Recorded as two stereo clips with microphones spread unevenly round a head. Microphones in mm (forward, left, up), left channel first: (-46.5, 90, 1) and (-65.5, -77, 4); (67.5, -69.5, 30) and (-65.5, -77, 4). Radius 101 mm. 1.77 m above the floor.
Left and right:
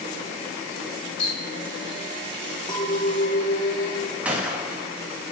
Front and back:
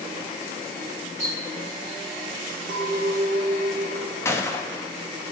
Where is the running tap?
125° left, 2.5 m.